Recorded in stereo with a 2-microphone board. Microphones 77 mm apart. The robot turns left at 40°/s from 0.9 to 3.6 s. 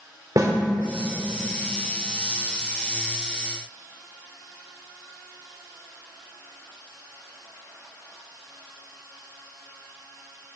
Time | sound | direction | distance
0.4 | a snare drum | 50° right (ahead or behind) | 1.5 m